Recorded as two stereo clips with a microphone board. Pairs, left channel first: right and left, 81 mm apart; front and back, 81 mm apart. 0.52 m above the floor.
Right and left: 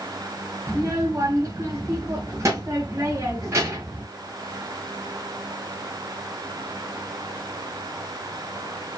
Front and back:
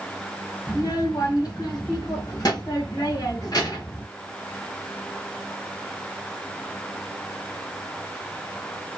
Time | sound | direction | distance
0.7 | a child speaking | 40° left | 1.5 m